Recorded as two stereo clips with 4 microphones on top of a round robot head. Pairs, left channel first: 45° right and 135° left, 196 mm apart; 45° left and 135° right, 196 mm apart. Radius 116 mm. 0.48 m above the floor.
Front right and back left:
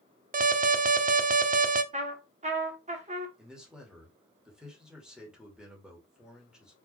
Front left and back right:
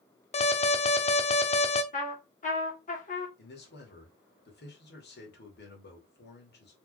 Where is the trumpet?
90° left, 2 m.